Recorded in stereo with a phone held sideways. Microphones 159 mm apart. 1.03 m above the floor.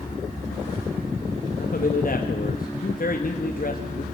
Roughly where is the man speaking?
Left.